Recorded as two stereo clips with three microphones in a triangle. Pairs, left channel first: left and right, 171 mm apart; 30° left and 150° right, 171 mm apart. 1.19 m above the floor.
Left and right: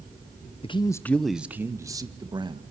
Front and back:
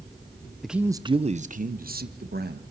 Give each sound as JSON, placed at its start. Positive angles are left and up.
{"t": 0.6, "sound": "a man speaking", "azimuth_deg": 120, "distance_m": 0.7}